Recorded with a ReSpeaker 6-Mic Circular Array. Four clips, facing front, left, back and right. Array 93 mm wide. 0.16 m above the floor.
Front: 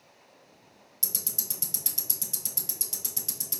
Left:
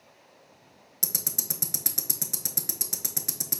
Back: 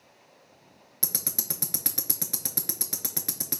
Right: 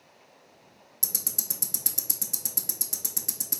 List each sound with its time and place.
1.0 s ticking: 165° left, 0.5 m